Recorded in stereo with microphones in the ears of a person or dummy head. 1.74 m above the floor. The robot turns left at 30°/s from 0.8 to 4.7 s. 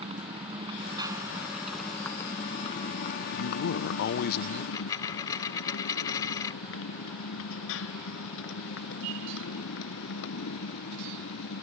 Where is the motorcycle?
30° right (ahead or behind); by 11.6 s 70° left (ahead or behind).